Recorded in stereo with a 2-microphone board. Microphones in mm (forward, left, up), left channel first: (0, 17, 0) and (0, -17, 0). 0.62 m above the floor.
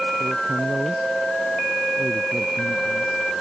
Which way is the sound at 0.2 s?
25° right (ahead or behind).